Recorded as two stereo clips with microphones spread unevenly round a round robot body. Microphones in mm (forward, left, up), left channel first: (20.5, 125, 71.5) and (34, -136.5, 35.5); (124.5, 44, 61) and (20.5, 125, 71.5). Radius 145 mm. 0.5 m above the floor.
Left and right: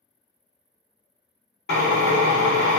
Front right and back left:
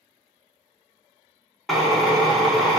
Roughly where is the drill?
Ahead left.